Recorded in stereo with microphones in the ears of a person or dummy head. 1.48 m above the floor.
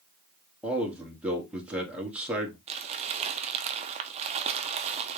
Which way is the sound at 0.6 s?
5° right (ahead or behind).